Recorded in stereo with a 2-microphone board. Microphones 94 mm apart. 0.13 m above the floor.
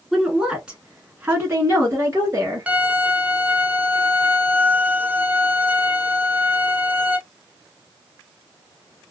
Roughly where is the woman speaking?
Centre.